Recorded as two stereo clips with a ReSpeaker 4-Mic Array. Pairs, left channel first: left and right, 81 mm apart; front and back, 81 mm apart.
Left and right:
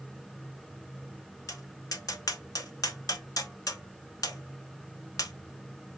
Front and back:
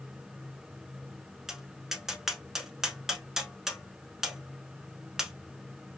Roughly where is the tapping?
Left.